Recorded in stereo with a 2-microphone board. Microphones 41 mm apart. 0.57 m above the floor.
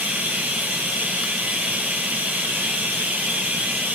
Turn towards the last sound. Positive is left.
turn(degrees=-55)  # may be behind; listen again after turning